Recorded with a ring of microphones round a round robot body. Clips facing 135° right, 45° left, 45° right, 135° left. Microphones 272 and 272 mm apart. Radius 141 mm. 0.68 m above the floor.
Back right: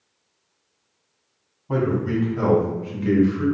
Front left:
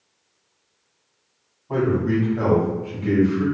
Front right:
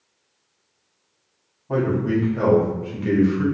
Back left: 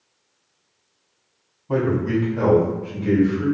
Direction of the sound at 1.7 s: 150° right.